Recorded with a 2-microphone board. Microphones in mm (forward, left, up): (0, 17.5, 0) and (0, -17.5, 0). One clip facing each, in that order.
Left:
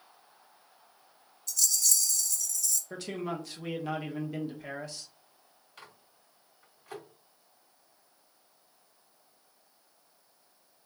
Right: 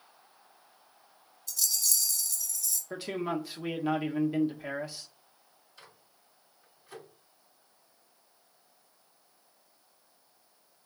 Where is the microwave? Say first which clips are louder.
Left 3 dB; 75° left (ahead or behind), 2.5 m.